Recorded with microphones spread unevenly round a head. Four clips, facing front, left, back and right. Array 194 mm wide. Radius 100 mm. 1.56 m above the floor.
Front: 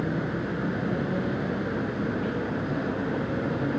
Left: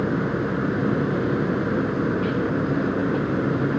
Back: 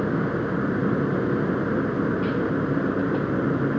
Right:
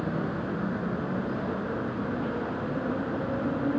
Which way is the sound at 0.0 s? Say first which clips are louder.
Left 7 dB, back 5 dB; 140° left.